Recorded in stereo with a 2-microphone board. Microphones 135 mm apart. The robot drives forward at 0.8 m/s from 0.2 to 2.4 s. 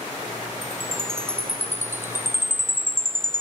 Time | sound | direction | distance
0.6 | a chime | 20° right (ahead or behind) | ?